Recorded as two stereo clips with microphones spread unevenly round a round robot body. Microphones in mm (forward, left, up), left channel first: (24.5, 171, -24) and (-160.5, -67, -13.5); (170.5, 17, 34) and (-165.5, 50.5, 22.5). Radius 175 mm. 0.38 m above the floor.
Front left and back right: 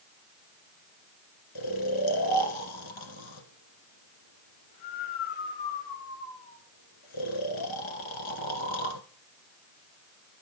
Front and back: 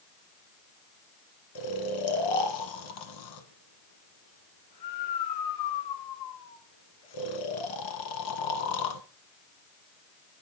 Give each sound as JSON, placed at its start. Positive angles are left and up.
{"t": 1.6, "sound": "snoring", "azimuth_deg": 20, "distance_m": 1.4}